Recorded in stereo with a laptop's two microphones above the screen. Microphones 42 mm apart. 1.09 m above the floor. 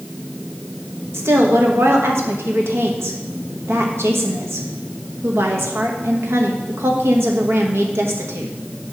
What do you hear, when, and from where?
1.1 s a woman speaking: 75° right (ahead or behind), 1.1 m